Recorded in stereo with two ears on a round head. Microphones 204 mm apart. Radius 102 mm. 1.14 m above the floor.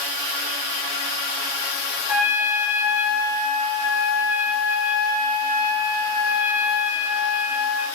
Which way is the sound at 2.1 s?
10° right (ahead or behind).